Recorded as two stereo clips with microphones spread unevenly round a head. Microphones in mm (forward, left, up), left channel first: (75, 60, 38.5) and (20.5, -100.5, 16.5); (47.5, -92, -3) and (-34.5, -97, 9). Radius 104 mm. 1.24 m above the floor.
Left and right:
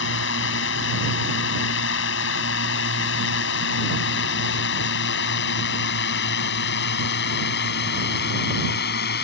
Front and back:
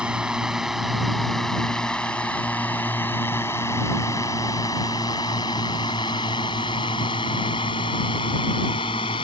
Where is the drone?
100° left; by 9.2 s 55° left.